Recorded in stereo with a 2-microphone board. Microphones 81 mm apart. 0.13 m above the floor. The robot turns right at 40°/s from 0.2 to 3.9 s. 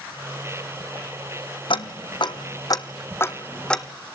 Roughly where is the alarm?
I don't hear an alarm.